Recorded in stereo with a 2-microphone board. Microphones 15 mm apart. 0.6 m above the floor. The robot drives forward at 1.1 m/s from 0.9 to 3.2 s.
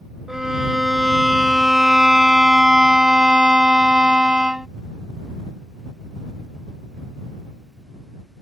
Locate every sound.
0.3 s a violin: 30° right (ahead or behind); by 4.7 s 70° right (ahead or behind)